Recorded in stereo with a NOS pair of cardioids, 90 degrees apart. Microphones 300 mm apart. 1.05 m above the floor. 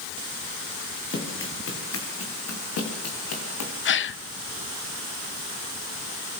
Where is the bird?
I don't hear a bird.